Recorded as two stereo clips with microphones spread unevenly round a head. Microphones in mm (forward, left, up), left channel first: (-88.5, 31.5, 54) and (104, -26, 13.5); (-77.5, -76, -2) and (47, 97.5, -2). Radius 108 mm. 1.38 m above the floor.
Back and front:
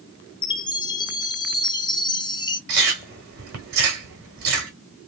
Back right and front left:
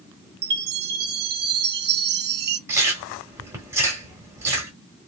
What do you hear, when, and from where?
0.4 s a chime: 90° left, 0.6 m
2.7 s chewing: 15° right, 1.2 m